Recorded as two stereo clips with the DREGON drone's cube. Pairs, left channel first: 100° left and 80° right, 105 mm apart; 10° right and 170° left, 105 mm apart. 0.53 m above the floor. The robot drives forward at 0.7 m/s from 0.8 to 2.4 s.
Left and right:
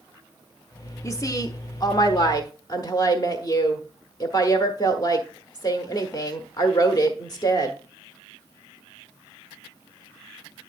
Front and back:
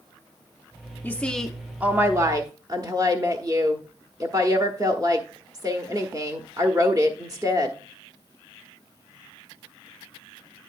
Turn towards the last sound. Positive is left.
turn(degrees=130)